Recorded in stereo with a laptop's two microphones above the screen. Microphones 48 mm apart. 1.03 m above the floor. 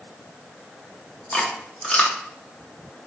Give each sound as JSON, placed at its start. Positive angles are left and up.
{"t": 1.3, "sound": "chewing", "side_deg": 25, "distance_m": 0.7}